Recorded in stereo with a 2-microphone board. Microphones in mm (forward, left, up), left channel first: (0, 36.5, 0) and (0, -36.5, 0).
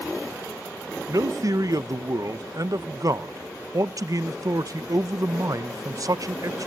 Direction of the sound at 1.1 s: 50° right (ahead or behind).